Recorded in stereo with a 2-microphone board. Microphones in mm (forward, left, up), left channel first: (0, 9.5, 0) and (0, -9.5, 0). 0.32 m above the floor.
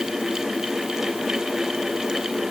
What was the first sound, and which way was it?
Only background noise.